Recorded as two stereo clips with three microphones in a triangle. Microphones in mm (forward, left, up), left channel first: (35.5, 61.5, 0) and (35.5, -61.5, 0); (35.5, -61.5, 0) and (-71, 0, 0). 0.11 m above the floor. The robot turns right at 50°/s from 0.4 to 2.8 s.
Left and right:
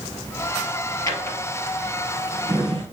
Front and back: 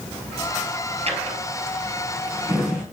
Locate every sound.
1.1 s a drawer: 145° left, 1.4 m; by 2.8 s 130° right, 1.4 m